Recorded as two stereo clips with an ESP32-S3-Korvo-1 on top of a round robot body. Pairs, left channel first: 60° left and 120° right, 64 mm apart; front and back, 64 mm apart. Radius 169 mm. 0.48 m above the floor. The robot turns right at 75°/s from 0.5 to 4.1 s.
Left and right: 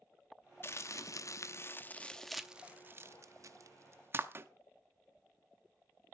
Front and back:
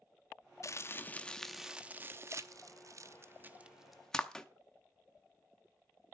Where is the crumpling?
20° left, 1.0 m; by 4.5 s 80° right, 1.0 m.